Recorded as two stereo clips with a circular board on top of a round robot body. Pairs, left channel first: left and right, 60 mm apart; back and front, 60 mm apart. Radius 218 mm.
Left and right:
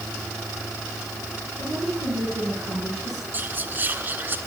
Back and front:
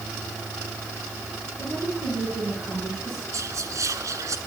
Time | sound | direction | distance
1.6 | a woman speaking | 100° right | 7.5 m
3.3 | whispering | 35° right | 2.5 m